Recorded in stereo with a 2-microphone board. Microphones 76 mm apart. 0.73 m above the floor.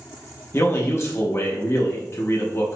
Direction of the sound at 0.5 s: 35° left (ahead or behind).